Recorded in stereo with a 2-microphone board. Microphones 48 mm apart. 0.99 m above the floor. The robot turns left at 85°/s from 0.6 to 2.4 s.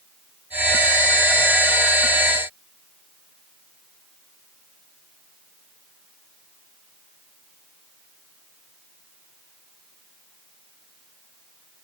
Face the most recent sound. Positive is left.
No sound to turn to.